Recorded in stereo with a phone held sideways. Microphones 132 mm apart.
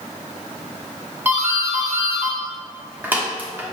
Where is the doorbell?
15° right (ahead or behind), 0.8 m.